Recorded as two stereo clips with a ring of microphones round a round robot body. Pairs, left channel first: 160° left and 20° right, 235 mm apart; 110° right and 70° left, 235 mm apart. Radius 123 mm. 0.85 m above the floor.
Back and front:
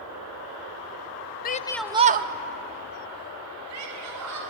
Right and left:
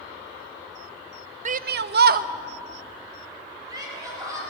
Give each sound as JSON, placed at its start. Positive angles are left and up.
{"t": 1.4, "sound": "a shout", "azimuth_deg": 120, "distance_m": 0.6}